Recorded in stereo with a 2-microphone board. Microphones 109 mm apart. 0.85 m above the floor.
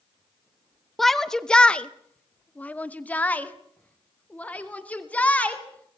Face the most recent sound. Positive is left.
turn(degrees=10)  # may be behind; listen again after turning